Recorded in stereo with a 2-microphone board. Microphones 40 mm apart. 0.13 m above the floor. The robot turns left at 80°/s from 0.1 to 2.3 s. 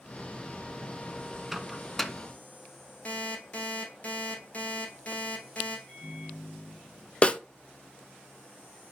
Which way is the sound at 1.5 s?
5° right (ahead or behind).